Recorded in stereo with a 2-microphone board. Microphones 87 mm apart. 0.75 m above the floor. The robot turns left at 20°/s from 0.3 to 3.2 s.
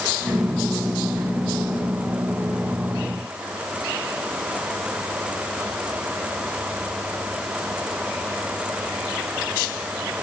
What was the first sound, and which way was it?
Only background noise.